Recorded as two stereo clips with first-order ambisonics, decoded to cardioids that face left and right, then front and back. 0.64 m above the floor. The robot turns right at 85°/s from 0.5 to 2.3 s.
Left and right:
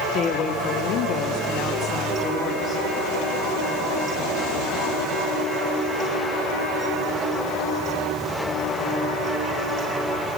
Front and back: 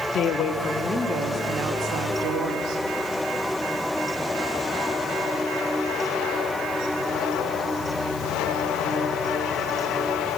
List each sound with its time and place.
0.1 s a woman speaking: 50° left, 0.8 m; by 2.8 s 155° right, 0.8 m